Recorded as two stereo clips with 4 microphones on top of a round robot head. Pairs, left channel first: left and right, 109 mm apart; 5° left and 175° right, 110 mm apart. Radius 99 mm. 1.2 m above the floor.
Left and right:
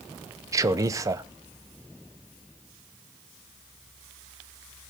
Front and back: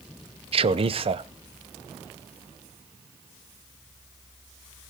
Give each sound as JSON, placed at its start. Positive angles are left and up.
{"t": 0.5, "sound": "a man speaking", "azimuth_deg": -150, "distance_m": 0.7}